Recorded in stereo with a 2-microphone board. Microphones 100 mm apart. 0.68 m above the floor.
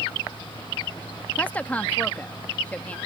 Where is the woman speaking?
15° left (ahead or behind).